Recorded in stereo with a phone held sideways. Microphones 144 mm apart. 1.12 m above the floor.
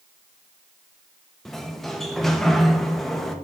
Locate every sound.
1.4 s a sliding door: centre (ahead or behind), 0.8 m